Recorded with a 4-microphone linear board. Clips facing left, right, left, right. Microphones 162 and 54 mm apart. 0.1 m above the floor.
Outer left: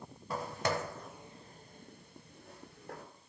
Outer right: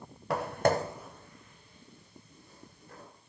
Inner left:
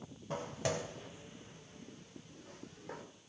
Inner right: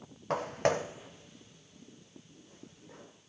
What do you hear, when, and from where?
0.3 s footsteps: 70° right (ahead or behind), 0.9 m; by 3.0 s 65° left (ahead or behind), 2.5 m